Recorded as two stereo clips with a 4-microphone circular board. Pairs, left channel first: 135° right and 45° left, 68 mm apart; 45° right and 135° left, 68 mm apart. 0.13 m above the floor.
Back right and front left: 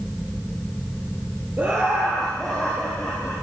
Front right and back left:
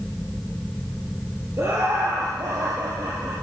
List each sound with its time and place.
1.6 s laughter: 100° left, 1.9 m; by 3.3 s 155° left, 3.5 m